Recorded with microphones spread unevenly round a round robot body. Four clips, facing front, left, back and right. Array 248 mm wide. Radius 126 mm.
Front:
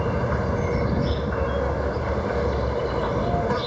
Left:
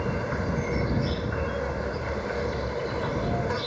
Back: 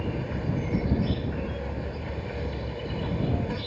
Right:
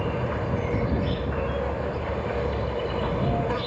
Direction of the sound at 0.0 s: 5° right.